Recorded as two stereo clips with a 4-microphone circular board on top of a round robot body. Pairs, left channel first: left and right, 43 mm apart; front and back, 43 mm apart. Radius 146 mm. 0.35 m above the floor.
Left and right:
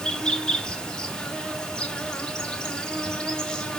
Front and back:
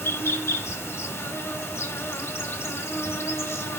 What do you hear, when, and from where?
0.0 s an insect: 15° left, 1.3 m